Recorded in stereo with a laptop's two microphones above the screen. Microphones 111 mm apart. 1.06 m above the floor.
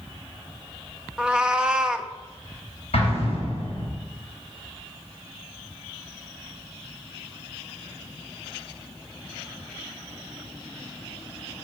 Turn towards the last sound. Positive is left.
turn(degrees=70)  # may be behind; listen again after turning